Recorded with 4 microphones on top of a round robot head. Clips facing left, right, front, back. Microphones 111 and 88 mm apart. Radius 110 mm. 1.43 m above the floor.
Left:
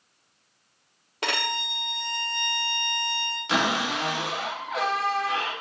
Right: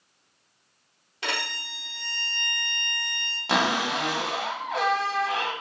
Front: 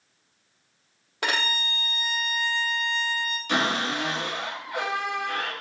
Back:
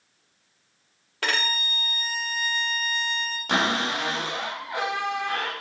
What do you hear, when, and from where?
1.2 s a violin: 70° left, 0.6 m
3.5 s a cupboard door: 140° right, 1.0 m